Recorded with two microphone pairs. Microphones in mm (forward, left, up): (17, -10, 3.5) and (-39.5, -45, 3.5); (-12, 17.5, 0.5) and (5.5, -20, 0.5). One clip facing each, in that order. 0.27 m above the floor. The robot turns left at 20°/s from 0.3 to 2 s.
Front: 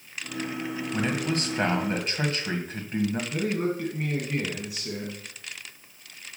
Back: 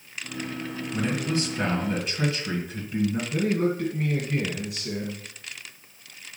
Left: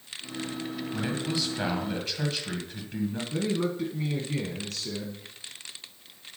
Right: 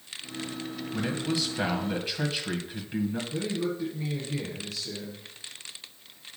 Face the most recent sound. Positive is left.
turn(degrees=115)